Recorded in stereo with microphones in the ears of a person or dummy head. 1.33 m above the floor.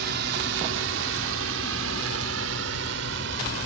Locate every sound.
0.0 s a drone: 60° right (ahead or behind); by 3.6 s 70° right (ahead or behind)